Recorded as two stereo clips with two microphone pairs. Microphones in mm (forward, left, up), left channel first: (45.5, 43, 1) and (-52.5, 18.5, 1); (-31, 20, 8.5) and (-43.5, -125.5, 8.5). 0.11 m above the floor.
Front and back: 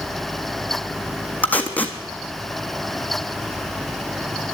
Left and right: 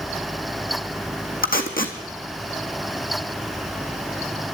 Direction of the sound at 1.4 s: 85° left.